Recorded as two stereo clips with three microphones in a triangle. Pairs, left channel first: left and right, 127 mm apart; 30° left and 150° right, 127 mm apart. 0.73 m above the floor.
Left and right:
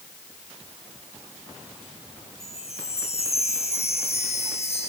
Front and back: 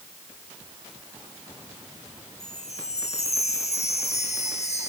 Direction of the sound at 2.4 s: 55° left.